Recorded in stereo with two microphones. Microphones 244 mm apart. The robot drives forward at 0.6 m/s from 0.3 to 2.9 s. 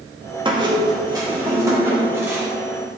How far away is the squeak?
About 1.2 m.